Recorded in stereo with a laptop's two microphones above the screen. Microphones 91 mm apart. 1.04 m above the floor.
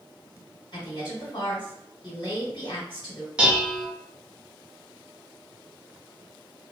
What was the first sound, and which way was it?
A woman speaking, 60° left (ahead or behind).